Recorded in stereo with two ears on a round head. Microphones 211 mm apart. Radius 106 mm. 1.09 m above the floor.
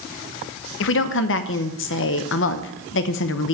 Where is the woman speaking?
55° left (ahead or behind), 0.8 m.